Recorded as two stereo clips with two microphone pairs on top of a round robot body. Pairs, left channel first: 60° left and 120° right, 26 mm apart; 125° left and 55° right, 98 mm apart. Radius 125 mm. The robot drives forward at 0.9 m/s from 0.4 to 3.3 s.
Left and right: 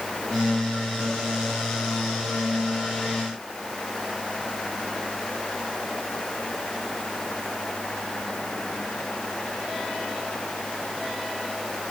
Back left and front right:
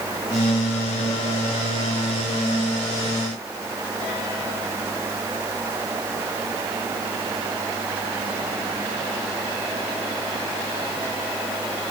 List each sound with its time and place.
Only background noise.